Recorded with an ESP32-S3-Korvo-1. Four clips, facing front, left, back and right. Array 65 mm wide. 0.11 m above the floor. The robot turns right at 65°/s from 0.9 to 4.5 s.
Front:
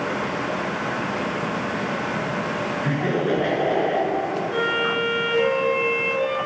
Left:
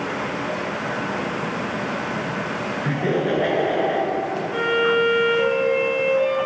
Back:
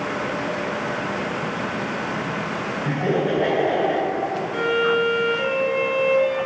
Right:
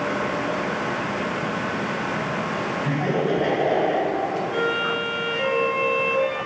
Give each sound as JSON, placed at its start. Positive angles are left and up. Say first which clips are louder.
{"t": 2.8, "sound": "laughter", "louder": "left 2 dB, back 2 dB", "azimuth_deg": 45, "distance_m": 1.3}
{"t": 4.5, "sound": "a violin", "louder": "left 8 dB, back 4 dB", "azimuth_deg": 20, "distance_m": 1.7}